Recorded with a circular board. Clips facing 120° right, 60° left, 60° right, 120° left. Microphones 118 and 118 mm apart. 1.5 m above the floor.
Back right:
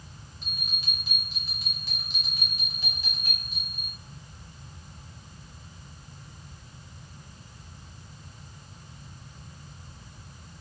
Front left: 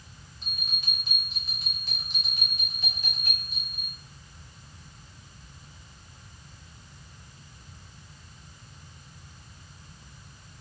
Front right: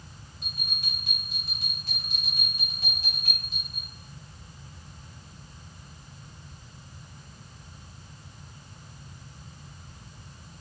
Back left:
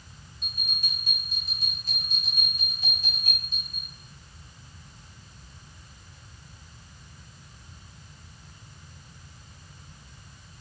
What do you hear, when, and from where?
0.4 s a bell: 40° right, 1.7 m